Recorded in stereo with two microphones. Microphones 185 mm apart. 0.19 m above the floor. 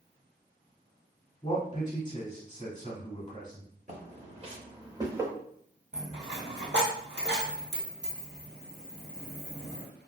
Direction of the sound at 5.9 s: 80° right.